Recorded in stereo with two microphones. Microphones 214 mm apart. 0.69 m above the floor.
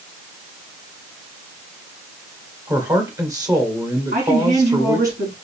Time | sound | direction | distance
2.7 | a man speaking | 15° right (ahead or behind) | 1.8 m
4.1 | a woman speaking | 55° right (ahead or behind) | 4 m